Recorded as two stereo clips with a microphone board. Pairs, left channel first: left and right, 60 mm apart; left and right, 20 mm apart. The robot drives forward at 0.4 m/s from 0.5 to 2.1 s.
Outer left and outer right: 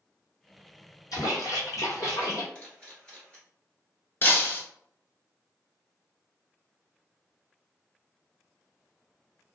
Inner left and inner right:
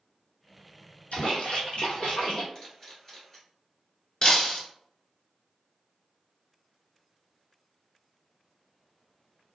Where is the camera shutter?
20° left (ahead or behind), 1.2 m.